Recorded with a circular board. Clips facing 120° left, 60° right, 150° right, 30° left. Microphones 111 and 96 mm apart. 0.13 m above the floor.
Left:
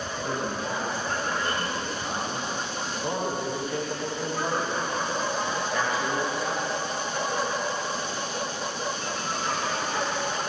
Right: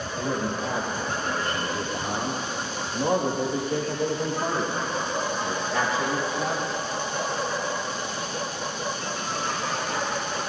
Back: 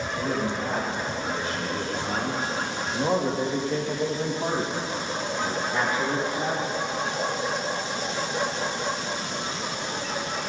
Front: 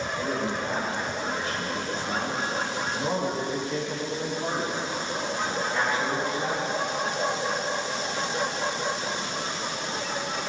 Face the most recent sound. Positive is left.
turn(degrees=-125)